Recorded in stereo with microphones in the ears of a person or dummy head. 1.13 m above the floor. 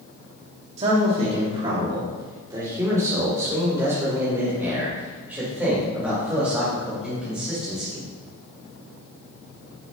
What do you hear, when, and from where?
0.8 s a man speaking: 40° right (ahead or behind), 2 m; by 8.0 s 5° right (ahead or behind), 6 m